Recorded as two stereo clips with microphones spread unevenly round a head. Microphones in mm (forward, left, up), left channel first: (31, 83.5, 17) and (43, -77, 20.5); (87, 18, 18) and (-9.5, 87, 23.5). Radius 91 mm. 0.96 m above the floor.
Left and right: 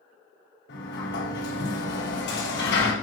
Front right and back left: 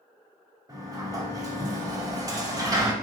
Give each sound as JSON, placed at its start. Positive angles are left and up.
{"t": 0.7, "sound": "a sliding door", "azimuth_deg": 85, "distance_m": 3.5}